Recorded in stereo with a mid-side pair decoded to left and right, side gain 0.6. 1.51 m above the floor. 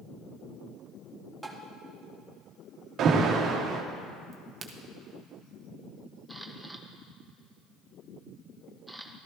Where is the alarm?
50° right, 1.4 m.